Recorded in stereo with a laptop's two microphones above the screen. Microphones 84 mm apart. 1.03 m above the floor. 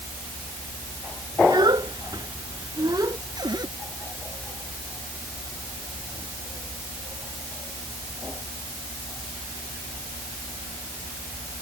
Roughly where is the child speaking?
Right.